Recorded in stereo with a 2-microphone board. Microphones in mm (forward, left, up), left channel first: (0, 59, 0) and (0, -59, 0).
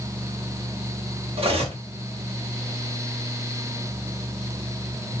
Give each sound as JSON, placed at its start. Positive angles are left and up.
{"t": 1.4, "sound": "cutlery clinking", "side_deg": -55, "distance_m": 0.8}